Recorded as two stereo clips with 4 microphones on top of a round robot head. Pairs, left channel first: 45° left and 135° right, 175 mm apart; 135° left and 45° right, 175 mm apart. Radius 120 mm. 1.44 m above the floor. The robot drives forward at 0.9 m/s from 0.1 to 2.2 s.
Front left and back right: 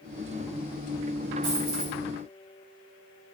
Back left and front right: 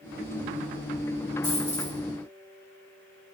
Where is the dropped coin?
150° right, 4.5 m.